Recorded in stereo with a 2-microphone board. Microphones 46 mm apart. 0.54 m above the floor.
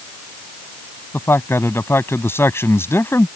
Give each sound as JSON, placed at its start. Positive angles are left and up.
{"t": 1.1, "sound": "a man speaking", "side_deg": 75}